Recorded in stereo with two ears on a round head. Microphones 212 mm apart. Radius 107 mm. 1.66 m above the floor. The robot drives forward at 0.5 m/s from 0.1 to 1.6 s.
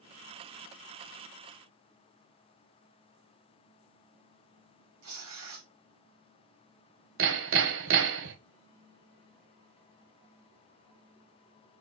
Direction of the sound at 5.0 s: 65° right (ahead or behind).